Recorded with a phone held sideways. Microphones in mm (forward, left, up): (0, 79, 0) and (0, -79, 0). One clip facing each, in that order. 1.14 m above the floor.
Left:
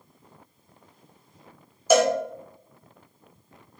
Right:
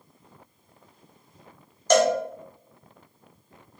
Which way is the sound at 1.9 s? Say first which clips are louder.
Even; 5° left (ahead or behind).